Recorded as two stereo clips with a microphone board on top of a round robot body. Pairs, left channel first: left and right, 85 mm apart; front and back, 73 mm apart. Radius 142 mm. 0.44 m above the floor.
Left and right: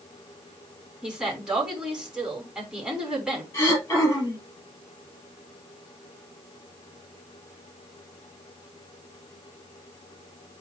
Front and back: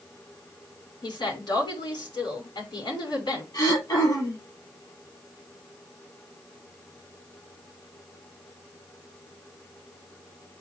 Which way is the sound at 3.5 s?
35° left.